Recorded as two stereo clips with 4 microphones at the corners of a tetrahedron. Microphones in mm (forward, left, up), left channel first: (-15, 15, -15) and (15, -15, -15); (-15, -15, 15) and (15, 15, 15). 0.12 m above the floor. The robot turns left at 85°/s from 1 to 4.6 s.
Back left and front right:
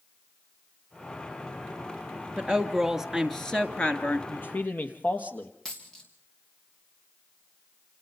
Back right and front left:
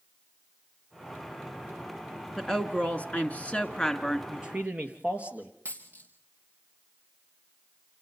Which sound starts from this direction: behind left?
A man speaking, at 4.3 s.